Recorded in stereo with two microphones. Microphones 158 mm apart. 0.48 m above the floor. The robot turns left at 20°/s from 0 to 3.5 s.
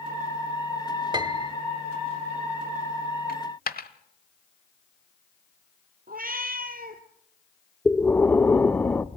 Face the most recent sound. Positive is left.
turn(degrees=10)  # may be behind; listen again after turning